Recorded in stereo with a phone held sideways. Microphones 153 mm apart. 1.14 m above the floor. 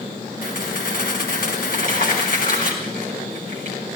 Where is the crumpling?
70° left (ahead or behind), 5 m.